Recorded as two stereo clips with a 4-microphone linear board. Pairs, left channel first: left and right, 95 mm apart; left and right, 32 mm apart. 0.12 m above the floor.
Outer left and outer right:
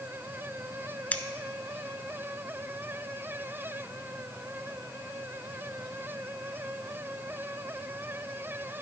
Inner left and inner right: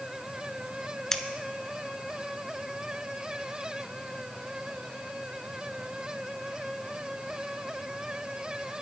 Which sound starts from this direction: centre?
Scissors, at 1.1 s.